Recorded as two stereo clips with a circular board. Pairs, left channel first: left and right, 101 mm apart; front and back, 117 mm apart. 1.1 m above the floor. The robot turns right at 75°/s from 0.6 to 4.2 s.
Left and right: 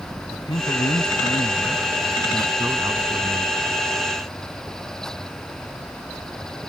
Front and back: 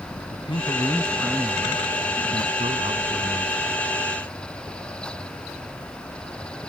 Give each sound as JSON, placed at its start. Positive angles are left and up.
{"t": 0.3, "sound": "a man speaking", "azimuth_deg": 50}